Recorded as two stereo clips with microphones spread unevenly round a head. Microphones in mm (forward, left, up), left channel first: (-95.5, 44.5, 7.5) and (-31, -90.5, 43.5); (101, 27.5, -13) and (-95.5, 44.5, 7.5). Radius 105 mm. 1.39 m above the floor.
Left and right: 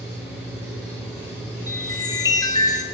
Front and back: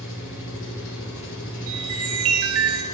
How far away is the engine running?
About 4.5 m.